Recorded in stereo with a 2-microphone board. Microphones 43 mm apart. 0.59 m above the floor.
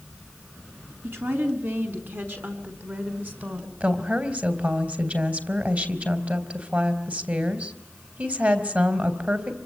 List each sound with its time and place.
1.0 s a woman speaking: 60° right (ahead or behind), 5.5 m; by 3.7 s 45° right (ahead or behind), 5 m
3.8 s a woman speaking: 35° right (ahead or behind), 3.5 m